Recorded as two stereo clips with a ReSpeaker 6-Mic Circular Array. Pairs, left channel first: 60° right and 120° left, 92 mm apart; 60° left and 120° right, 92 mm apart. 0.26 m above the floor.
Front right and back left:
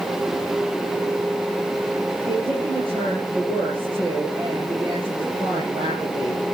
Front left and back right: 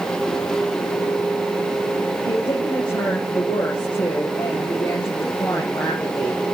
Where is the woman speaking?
100° left, 7.5 m.